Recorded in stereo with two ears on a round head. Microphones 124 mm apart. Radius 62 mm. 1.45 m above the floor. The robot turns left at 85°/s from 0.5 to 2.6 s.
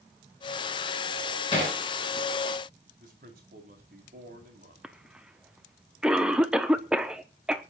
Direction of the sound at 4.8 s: 5° right (ahead or behind).